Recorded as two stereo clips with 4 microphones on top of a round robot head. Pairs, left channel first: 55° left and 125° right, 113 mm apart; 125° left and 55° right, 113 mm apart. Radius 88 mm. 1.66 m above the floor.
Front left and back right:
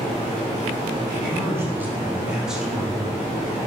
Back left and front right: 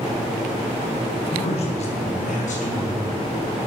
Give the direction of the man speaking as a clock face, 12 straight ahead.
6 o'clock.